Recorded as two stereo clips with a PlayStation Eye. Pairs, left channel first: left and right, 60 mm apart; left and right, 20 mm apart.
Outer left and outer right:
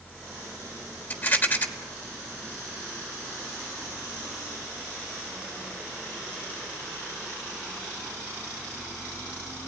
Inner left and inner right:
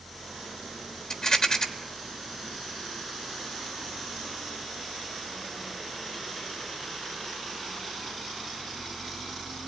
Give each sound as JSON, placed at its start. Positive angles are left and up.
{"t": 1.1, "sound": "a rattle", "side_deg": 35, "distance_m": 1.4}